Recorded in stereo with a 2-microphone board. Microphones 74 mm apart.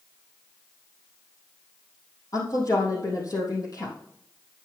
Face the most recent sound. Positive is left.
turn(degrees=50)  # may be behind; listen again after turning